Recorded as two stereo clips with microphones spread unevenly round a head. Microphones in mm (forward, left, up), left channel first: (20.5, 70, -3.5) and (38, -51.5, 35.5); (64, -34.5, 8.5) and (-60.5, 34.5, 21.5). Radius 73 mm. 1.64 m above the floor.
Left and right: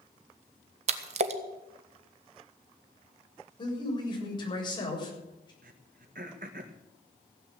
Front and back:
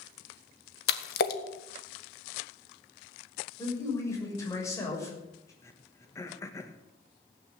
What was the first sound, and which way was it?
A splash, 50° right.